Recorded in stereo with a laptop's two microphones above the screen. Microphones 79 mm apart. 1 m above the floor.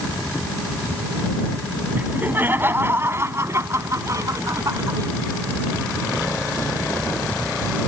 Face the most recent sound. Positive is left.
turn(degrees=-50)  # may be behind; listen again after turning